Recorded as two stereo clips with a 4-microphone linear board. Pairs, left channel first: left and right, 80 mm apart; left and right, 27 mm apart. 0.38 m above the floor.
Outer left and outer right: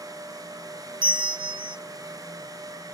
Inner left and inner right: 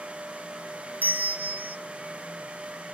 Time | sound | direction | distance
1.0 | a bell | 70° right (ahead or behind) | 0.5 m